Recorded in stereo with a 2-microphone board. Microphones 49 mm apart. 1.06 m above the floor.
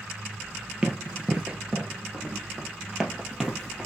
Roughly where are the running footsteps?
Centre.